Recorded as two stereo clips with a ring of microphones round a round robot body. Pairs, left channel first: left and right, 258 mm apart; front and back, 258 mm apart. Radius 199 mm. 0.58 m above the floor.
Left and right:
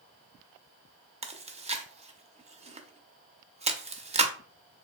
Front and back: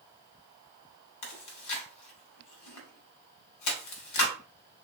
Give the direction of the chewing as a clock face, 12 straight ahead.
1 o'clock.